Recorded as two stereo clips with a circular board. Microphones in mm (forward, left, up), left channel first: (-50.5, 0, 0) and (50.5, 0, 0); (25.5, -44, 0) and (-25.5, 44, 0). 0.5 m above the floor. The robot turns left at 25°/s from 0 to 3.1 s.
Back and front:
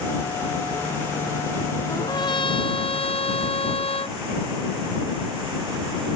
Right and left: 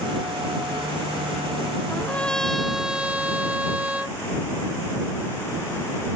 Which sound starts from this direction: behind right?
A trumpet, at 1.9 s.